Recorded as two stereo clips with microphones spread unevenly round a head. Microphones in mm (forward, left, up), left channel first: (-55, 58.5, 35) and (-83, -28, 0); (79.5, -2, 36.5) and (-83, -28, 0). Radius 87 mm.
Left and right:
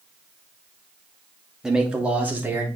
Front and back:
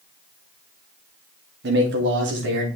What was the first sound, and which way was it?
A man speaking, 170° left.